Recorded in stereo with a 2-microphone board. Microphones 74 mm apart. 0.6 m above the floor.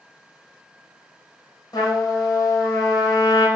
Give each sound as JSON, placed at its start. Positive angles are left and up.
{"t": 1.7, "sound": "a trumpet", "side_deg": 60, "distance_m": 3.5}